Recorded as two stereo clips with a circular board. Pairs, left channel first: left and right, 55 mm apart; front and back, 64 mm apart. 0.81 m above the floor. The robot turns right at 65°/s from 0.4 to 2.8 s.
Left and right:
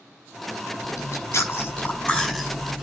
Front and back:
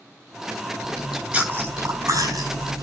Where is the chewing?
70° left, 5.5 m; by 2.8 s 160° right, 5.5 m.